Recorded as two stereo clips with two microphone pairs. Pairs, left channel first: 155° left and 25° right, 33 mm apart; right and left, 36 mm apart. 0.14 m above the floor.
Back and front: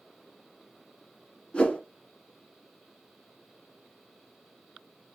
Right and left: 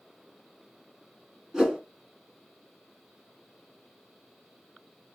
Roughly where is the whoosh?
Behind left.